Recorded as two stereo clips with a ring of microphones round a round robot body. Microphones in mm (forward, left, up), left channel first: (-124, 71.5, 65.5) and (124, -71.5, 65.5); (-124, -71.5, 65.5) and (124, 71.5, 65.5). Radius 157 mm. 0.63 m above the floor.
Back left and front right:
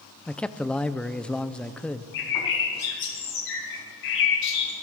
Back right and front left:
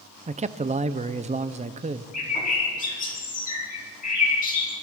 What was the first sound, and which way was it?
A man speaking, 70° left.